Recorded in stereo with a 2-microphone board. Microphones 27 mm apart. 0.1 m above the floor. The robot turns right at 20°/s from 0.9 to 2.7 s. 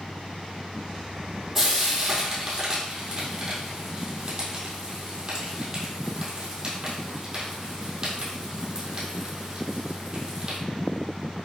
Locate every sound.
1.6 s frying: 10° right (ahead or behind), 1.8 m; by 10.6 s 30° right (ahead or behind), 1.8 m